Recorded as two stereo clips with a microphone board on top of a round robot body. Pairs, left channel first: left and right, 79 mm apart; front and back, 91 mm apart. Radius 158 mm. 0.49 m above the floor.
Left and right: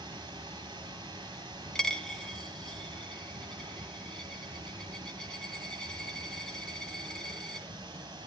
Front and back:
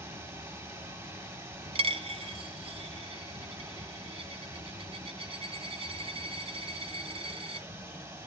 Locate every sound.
0.0 s running water: 120° right, 2.5 m
1.8 s a dropped coin: 175° left, 1.0 m